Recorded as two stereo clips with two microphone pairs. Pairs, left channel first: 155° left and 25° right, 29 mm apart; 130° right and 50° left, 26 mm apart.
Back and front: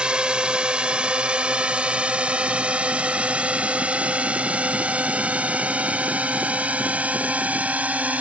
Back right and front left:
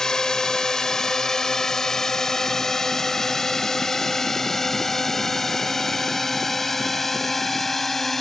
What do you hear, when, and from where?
0.0 s a drone: 75° right; by 8.2 s 50° right